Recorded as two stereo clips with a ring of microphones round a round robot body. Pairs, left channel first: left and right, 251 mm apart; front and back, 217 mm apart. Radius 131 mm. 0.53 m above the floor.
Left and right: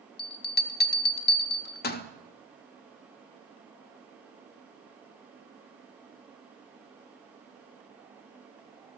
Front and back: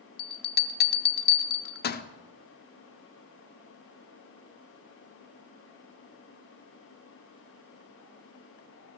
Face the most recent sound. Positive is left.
turn(degrees=40)